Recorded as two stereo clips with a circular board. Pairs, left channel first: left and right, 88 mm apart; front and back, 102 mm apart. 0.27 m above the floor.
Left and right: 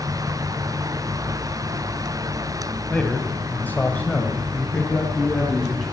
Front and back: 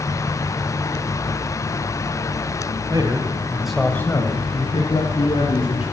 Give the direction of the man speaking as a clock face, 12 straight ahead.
7 o'clock.